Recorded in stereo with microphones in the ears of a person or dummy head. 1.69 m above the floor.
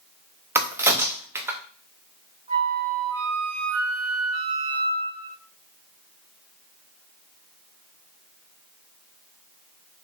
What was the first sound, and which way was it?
A crack, 15° right (ahead or behind).